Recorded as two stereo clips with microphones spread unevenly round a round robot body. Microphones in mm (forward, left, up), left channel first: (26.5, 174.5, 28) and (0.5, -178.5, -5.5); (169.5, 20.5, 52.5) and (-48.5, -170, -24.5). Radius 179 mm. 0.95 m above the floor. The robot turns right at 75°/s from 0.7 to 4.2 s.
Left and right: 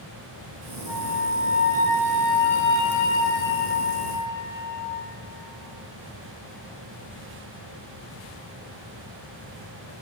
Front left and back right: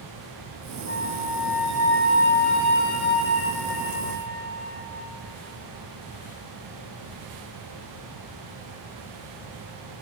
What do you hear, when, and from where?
0.9 s a flute: 90° right, 6.5 m; by 5.1 s 160° left, 6.5 m